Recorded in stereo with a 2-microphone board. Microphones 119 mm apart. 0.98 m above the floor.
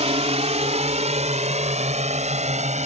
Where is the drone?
65° right (ahead or behind); by 2.9 s 75° right (ahead or behind).